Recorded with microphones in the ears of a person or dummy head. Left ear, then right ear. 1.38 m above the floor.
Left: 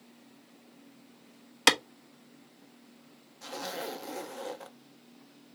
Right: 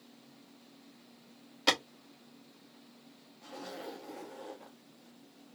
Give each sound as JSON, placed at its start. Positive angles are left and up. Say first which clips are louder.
{"t": 1.7, "sound": "a clap", "louder": "left 5 dB", "side_deg": 60, "distance_m": 1.0}
{"t": 3.4, "sound": "a zipper", "louder": "left 7 dB", "side_deg": 85, "distance_m": 0.8}